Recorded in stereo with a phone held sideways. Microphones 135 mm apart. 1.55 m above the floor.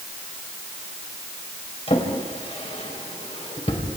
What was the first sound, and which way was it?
A drawer, 50° left (ahead or behind).